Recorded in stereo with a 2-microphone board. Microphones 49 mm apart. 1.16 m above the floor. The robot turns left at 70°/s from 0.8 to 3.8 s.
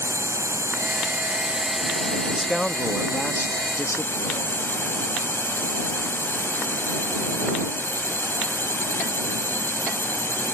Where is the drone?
105° right; by 10.6 s 45° left.